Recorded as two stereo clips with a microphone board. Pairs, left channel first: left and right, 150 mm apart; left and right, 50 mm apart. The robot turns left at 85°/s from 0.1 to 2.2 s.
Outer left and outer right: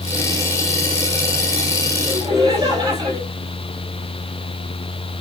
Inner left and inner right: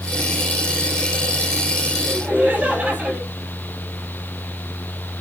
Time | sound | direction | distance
2.1 | laughter | 15° right (ahead or behind) | 5.5 m